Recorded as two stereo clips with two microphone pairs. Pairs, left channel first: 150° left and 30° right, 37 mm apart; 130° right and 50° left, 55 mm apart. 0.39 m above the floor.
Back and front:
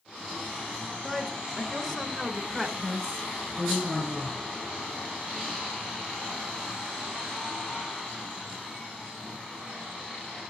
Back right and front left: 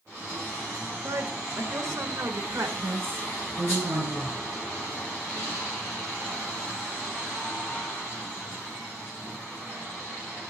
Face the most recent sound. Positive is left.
turn(degrees=85)